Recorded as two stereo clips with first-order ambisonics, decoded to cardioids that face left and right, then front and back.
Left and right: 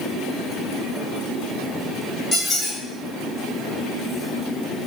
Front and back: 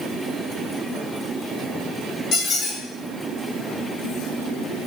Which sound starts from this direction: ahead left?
A squeak, at 2.3 s.